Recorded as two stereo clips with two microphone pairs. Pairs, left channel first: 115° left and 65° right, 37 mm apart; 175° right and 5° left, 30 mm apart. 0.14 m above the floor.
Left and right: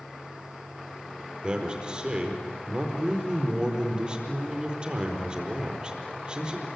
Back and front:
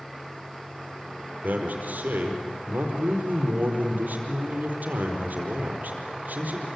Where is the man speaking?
5° right, 4.5 m.